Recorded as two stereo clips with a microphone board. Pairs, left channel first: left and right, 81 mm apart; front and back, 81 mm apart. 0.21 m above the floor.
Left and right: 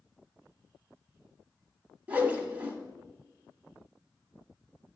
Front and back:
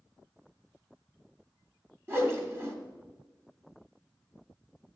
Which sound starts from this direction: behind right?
A whoosh, at 2.1 s.